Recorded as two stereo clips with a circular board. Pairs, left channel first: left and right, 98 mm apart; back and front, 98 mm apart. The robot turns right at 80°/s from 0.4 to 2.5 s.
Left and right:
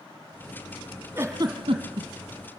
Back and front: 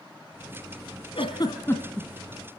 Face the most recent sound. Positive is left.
turn(degrees=-50)